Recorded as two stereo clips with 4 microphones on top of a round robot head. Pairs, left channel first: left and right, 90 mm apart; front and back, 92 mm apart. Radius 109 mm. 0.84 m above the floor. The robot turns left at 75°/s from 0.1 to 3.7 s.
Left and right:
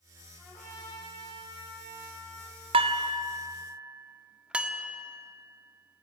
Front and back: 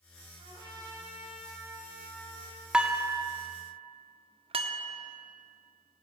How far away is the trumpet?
About 9 m.